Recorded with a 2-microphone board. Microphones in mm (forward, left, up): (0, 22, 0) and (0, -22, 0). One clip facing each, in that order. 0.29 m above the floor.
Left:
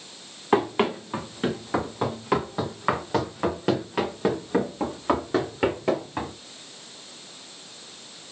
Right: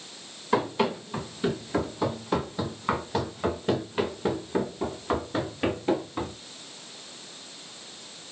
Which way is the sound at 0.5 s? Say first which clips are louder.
Left 3 dB; 50° left (ahead or behind).